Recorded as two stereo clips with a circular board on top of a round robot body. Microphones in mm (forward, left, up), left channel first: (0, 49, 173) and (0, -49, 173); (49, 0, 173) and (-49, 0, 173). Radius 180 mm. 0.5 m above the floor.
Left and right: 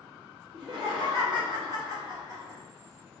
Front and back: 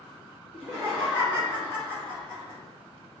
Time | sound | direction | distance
0.5 | laughter | 90° right | 1.8 m